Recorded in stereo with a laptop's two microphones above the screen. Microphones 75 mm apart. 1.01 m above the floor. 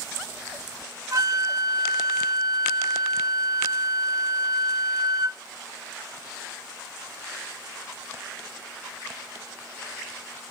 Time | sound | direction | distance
1.1 | a flute | 50° right (ahead or behind) | 1.0 m